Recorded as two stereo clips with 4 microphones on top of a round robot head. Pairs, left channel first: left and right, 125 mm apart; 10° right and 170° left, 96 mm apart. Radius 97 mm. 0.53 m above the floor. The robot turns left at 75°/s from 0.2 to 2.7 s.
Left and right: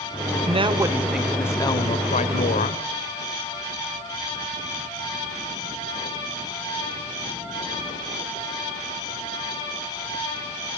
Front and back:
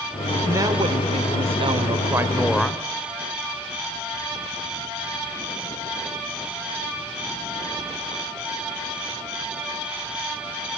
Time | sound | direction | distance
0.5 | a woman speaking | 125° right | 2.0 m